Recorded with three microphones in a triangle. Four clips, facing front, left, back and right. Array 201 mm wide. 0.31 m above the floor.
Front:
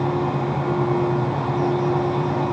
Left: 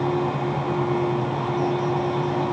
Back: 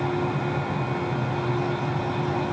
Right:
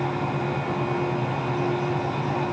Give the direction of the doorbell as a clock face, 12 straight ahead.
I don't hear a doorbell.